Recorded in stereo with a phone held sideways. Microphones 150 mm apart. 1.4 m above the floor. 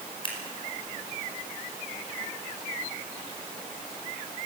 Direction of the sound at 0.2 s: 35° left (ahead or behind).